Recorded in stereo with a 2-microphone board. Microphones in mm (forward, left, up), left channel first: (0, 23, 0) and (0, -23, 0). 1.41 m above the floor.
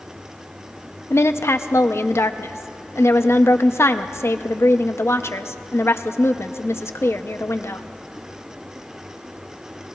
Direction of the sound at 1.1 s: 75° left (ahead or behind).